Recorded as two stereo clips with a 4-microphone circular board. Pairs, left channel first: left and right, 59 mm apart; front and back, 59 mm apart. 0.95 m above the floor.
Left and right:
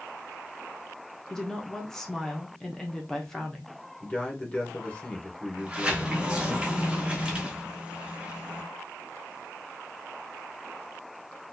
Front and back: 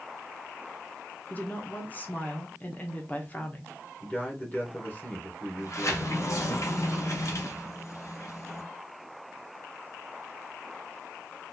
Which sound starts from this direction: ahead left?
A man speaking, at 4.0 s.